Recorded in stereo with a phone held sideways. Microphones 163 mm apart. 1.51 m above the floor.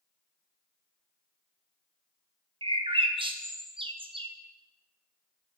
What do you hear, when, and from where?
2.6 s a bird: 35° right (ahead or behind), 0.5 m